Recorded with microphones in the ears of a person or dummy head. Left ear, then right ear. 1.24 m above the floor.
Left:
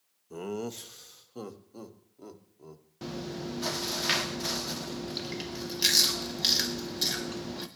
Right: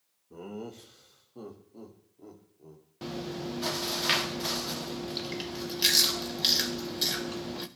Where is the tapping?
I don't hear tapping.